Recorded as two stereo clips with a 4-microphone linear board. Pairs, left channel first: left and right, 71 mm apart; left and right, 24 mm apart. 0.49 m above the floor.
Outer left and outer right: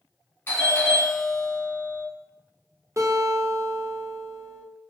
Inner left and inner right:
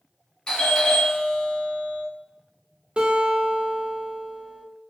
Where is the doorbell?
30° left (ahead or behind), 1.4 m.